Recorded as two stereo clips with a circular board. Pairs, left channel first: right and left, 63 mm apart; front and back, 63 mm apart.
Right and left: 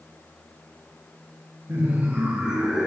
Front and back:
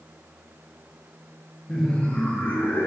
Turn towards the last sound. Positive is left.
turn(degrees=5)